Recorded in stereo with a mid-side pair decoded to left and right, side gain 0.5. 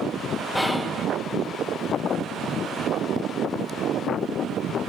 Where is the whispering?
10° left, 0.9 m.